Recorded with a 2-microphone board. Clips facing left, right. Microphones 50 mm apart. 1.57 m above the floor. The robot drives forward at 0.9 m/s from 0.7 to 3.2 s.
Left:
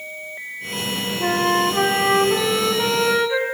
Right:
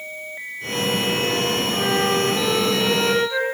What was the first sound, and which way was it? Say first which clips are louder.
A flute: left 3 dB; 65° left (ahead or behind).